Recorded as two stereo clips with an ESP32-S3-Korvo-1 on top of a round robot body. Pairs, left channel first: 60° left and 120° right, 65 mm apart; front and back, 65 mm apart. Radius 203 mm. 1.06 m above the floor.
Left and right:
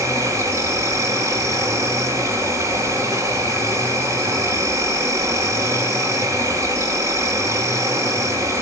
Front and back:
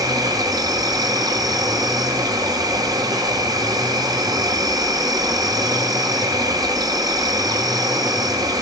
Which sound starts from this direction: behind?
An insect, at 0.0 s.